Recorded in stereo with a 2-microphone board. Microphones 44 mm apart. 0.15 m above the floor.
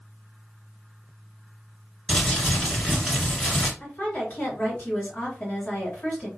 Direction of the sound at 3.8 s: 40° left (ahead or behind).